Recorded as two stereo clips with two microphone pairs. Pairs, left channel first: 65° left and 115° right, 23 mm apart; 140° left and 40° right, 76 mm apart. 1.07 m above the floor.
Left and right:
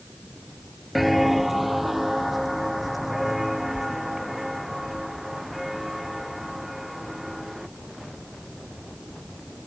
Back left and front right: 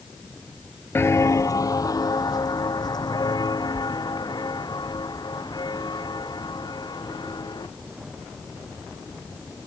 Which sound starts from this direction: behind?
Footsteps, at 0.9 s.